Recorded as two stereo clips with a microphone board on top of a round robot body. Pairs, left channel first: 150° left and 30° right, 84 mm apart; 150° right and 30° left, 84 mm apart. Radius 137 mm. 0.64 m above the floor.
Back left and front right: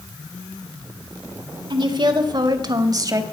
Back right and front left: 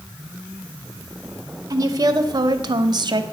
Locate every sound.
1.7 s a woman speaking: 15° right, 2 m; by 3.2 s 10° left, 1.7 m